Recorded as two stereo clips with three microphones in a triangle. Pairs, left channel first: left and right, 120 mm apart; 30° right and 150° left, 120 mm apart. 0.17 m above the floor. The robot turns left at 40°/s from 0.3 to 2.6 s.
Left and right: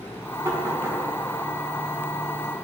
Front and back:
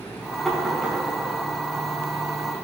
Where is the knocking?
120° right, 1.4 m; by 1.0 s 140° right, 1.4 m.